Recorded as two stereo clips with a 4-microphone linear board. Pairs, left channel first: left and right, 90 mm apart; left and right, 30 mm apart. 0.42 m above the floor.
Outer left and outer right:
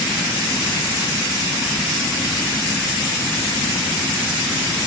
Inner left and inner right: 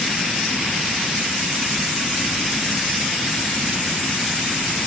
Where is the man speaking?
I don't hear a man speaking.